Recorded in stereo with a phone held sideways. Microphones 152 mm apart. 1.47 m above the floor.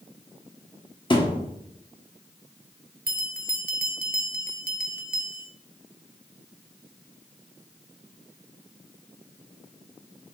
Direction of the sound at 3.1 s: 75° right (ahead or behind).